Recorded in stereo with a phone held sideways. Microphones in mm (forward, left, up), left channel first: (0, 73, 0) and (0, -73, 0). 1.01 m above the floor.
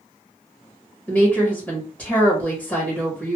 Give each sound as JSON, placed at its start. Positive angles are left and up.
{"t": 1.1, "sound": "a woman speaking", "side_deg": 10, "distance_m": 1.2}